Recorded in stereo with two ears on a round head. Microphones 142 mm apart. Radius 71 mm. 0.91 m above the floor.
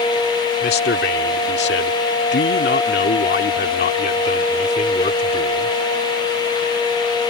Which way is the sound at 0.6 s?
65° left (ahead or behind).